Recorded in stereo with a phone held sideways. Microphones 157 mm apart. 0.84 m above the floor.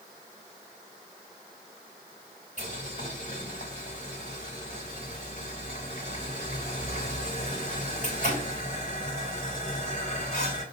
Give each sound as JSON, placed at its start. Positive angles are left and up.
{"t": 2.6, "sound": "boiling", "side_deg": 50, "distance_m": 4.5}